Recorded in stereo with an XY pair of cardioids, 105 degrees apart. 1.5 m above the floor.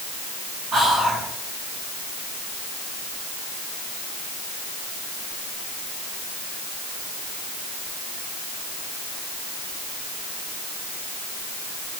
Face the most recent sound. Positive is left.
turn(degrees=-35)